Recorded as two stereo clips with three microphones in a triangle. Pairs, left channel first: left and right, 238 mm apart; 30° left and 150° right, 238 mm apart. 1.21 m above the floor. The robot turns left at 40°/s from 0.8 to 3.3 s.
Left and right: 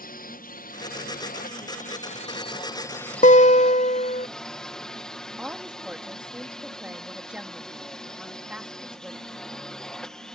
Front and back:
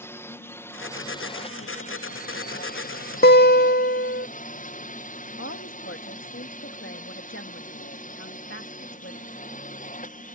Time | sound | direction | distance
0.0 | a drone | 105° left | ?
3.2 | a guitar | 50° left | ?
5.4 | a woman speaking | 5° right | ?